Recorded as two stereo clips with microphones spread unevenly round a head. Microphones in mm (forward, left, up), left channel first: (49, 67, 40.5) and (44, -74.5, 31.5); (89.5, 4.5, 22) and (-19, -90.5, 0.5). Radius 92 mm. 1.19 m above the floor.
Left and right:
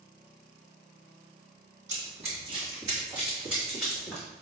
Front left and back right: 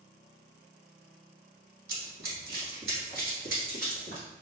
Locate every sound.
1.9 s running footsteps: 140° right, 1.9 m; by 4.2 s 175° left, 3 m